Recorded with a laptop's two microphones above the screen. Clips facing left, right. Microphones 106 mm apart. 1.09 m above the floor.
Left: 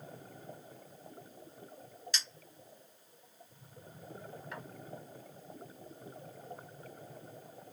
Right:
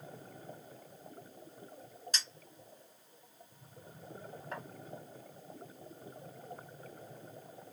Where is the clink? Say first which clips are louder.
Even; 40° right (ahead or behind), 1.4 m.